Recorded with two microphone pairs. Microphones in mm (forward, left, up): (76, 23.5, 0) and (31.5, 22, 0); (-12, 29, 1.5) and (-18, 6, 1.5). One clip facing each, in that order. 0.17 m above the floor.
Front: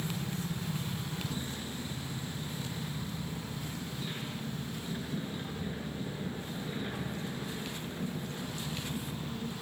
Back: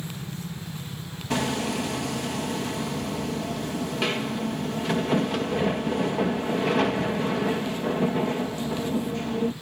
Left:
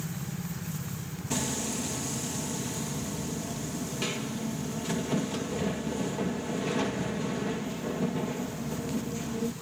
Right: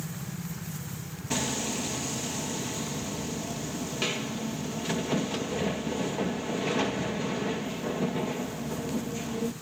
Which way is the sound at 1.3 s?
Straight behind.